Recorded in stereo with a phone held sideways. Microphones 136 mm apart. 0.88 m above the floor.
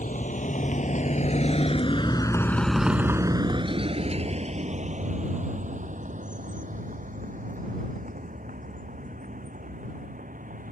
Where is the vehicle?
75° left (ahead or behind); by 10.7 s 80° right.